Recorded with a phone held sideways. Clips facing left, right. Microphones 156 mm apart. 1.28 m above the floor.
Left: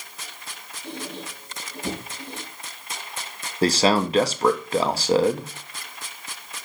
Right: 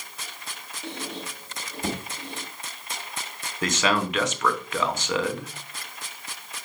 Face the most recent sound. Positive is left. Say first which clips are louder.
# left 5 dB
turn(degrees=30)  # may be behind; listen again after turning